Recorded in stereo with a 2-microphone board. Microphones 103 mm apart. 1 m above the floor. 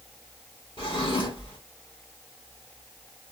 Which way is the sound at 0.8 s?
55° left (ahead or behind).